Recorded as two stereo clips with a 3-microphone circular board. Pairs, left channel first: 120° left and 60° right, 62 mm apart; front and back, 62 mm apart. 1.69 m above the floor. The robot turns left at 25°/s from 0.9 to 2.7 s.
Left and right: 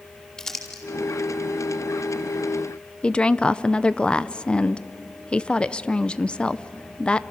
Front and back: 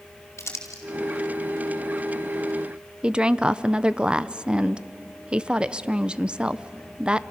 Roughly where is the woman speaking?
Behind left.